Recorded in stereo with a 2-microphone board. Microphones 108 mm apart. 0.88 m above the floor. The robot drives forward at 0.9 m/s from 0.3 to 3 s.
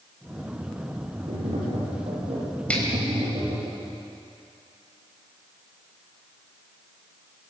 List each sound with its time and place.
1.3 s tapping: 75° right (ahead or behind), 8 m; by 3.7 s 85° right, 7.5 m
2.7 s a finger snap: 10° left (ahead or behind), 4 m